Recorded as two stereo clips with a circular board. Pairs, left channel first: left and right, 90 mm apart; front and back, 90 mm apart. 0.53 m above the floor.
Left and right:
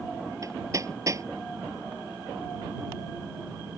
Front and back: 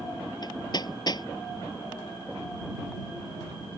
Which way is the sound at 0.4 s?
40° right.